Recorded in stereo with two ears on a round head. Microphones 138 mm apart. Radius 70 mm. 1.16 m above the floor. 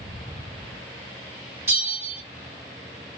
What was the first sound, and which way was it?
A bell, 20° right (ahead or behind).